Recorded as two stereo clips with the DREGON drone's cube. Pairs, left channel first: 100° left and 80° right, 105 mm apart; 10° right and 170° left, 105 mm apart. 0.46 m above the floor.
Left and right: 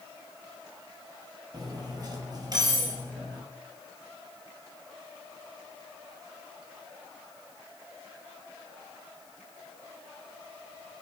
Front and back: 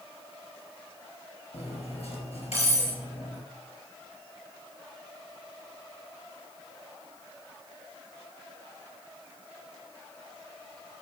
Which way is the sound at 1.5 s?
25° right.